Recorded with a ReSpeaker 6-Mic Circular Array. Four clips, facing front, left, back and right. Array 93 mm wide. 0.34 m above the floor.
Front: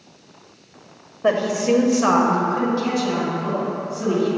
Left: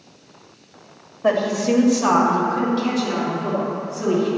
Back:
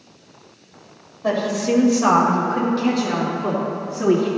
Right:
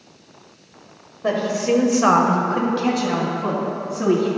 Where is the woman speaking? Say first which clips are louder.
Left 2 dB, front 2 dB; 10° left, 1.4 m; by 4.3 s 115° right, 4 m.